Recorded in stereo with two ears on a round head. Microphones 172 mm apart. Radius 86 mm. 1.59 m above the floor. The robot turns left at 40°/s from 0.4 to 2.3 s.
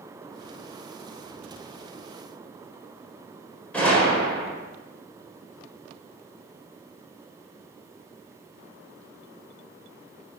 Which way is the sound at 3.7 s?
5° left (ahead or behind).